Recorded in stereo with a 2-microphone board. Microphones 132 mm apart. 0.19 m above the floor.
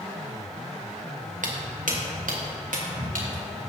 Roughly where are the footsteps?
Right.